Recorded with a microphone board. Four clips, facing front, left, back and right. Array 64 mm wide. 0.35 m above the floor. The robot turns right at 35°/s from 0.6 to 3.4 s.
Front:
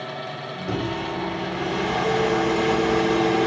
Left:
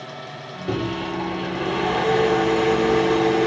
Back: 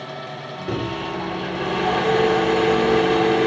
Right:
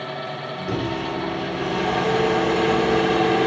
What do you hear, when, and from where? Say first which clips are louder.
0.7 s a microwave: left 1 dB, back 1 dB; 120° left, 0.7 m; by 3.5 s 145° right, 0.7 m